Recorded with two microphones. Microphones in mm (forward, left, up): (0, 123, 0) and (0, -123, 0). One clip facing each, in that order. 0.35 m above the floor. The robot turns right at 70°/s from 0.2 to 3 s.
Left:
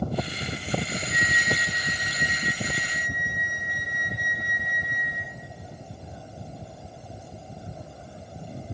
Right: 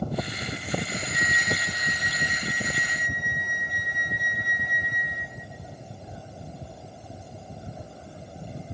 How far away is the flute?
About 3 m.